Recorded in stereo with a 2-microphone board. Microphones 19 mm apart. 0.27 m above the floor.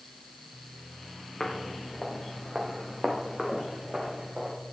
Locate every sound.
1.4 s footsteps: 25° left (ahead or behind), 1.5 m; by 4.5 s 30° right (ahead or behind), 2.5 m